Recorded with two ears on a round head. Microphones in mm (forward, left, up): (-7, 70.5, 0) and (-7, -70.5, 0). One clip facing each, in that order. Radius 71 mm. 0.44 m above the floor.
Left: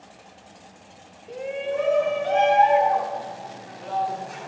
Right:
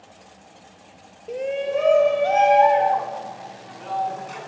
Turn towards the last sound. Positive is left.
turn(degrees=-75)  # may be behind; listen again after turning